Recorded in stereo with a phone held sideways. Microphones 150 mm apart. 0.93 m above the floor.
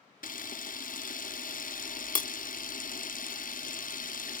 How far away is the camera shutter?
About 0.6 m.